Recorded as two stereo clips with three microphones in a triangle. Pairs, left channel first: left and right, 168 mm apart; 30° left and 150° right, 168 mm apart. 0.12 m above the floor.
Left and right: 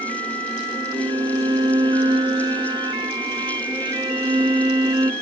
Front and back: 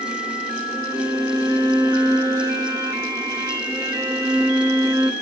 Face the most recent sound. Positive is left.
turn(degrees=-105)